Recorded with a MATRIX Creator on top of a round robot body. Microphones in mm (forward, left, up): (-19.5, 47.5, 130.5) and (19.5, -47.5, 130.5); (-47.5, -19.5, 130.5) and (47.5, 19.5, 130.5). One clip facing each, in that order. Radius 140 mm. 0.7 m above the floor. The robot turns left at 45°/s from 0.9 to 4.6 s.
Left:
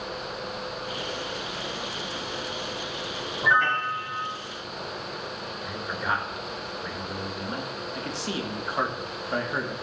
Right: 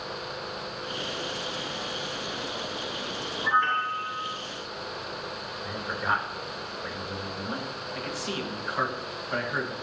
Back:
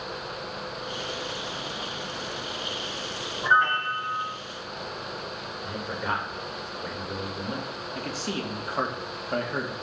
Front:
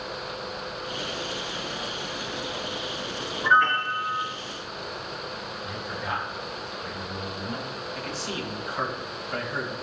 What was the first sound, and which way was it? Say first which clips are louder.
A piano: left 2 dB, front 1 dB; 135° left.